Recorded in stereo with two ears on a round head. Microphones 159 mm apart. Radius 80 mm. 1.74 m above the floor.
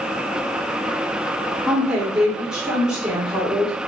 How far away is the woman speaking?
About 0.7 m.